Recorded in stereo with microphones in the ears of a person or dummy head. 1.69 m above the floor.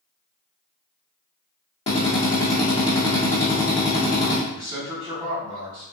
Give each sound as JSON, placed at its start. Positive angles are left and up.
{"t": 1.9, "sound": "a drill", "side_deg": 30, "distance_m": 0.8}
{"t": 4.5, "sound": "a man speaking", "side_deg": -30, "distance_m": 1.3}